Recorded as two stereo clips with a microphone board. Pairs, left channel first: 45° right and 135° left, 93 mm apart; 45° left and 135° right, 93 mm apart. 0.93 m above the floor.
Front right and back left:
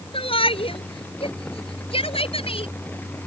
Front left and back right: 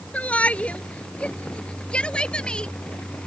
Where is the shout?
30° right; by 2.7 s 35° right.